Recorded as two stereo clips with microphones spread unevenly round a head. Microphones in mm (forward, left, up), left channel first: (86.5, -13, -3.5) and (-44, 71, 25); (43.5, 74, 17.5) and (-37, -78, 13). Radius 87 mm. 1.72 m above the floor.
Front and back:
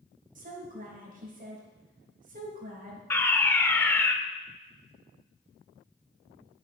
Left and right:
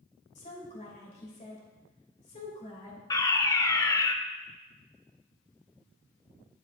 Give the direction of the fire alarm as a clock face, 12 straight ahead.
12 o'clock.